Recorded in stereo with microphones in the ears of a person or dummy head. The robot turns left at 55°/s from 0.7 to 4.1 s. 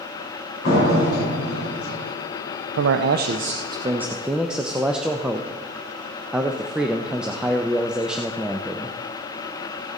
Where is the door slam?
115° left, 6.5 m; by 2.0 s 40° left, 6.5 m.